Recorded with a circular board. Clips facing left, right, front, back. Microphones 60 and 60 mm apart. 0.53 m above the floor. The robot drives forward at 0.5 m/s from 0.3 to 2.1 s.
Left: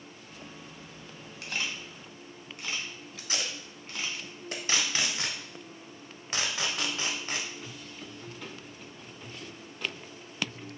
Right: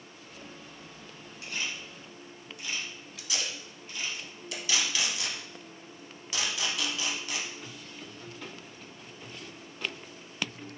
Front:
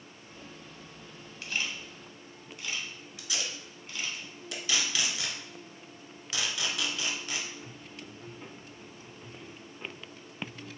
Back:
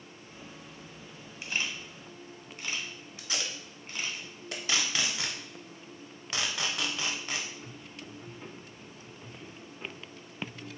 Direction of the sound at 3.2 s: 135° left.